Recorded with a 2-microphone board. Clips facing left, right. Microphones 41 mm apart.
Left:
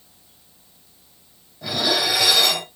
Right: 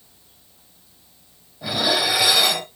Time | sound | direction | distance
1.6 | dishes clattering | 10° right (ahead or behind) | 1.6 m